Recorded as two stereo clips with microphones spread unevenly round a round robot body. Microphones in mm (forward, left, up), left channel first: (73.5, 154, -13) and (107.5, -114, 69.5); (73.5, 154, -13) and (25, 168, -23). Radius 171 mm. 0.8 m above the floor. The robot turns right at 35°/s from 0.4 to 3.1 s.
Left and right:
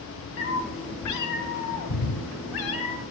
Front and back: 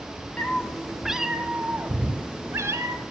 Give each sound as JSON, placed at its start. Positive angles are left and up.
{"t": 0.4, "sound": "a cat meowing", "azimuth_deg": 50, "distance_m": 0.9}